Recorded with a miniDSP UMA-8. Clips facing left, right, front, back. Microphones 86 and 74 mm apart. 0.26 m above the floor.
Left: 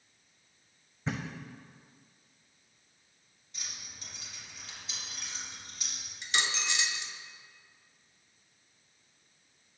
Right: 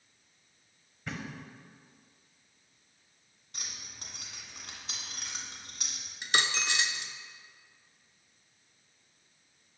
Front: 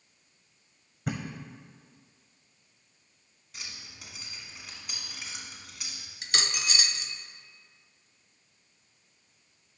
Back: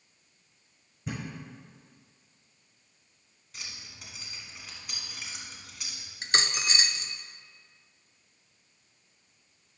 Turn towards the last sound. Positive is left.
turn(degrees=-125)